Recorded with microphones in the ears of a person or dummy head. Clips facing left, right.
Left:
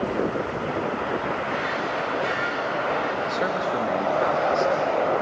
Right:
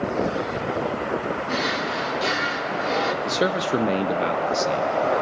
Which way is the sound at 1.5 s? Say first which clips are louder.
Right 1 dB; 60° right (ahead or behind).